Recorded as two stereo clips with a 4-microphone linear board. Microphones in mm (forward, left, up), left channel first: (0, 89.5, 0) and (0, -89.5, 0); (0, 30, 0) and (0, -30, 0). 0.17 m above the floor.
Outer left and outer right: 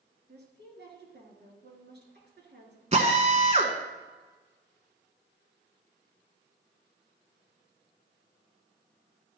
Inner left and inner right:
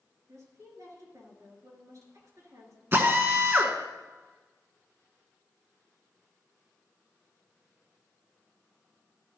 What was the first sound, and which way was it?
A woman speaking, 60° right (ahead or behind).